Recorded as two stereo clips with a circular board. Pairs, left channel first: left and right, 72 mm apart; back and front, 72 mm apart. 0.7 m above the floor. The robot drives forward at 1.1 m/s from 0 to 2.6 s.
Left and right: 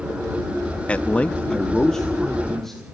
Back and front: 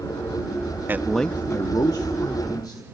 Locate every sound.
0.9 s a man speaking: 30° left, 0.6 m; by 2.8 s 175° left, 1.7 m